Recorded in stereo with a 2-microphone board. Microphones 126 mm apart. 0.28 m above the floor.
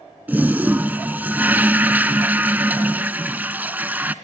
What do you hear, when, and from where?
0.3 s a toilet flushing: 15° right (ahead or behind), 0.7 m